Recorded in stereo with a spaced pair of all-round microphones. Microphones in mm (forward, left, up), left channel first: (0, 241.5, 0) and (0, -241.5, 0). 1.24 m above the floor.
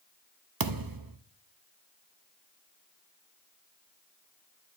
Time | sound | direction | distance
0.6 | a thud | 45° right (ahead or behind) | 0.7 m